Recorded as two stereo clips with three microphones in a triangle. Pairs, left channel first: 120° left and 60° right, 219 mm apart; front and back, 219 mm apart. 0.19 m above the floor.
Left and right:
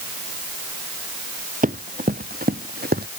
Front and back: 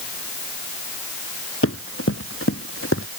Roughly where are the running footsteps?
Ahead.